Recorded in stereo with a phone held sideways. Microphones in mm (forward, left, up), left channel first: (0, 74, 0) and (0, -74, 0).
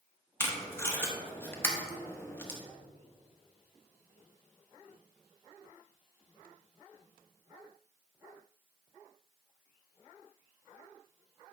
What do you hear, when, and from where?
0.4 s tape being pulled: 15° left (ahead or behind), 1.0 m